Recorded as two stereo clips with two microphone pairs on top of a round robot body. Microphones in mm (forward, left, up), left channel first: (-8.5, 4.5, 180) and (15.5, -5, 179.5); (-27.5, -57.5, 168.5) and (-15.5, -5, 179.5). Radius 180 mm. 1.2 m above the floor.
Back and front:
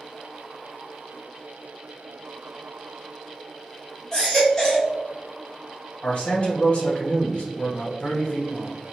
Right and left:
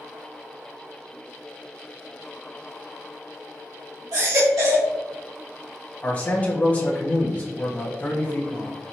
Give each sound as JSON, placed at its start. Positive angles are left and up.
{"t": 4.1, "sound": "a baby crying", "azimuth_deg": 85, "distance_m": 0.8}
{"t": 6.0, "sound": "a man speaking", "azimuth_deg": -160, "distance_m": 1.9}